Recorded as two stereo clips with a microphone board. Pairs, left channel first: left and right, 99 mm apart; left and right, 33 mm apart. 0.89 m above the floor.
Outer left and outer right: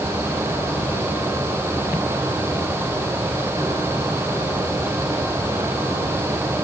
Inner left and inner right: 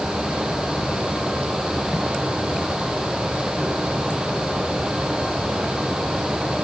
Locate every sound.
Only background noise.